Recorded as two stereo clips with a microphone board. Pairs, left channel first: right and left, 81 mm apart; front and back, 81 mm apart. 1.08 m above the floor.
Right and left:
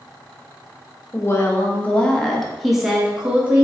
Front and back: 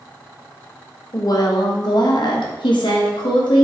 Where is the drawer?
No drawer in this recording.